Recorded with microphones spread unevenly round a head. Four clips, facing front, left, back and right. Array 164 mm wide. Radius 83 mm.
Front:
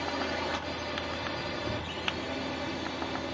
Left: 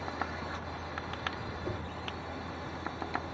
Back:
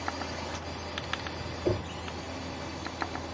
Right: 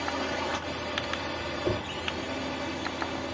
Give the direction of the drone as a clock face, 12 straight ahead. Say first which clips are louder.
Right 7 dB, front 4 dB; 2 o'clock.